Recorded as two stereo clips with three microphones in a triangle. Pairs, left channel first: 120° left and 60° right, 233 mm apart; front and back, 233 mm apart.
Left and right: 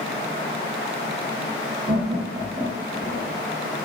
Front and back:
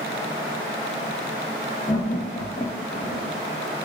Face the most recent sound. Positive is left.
turn(degrees=60)